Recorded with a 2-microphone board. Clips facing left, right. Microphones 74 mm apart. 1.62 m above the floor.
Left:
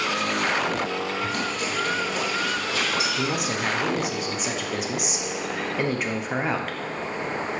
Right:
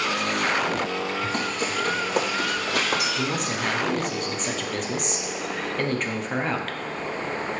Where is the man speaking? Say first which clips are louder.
Left 1 dB; 5° left (ahead or behind), 1.0 m.